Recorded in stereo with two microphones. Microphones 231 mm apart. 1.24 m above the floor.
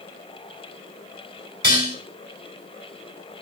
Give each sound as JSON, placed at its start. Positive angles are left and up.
{"t": 1.6, "sound": "dishes clattering", "side_deg": -50, "distance_m": 8.5}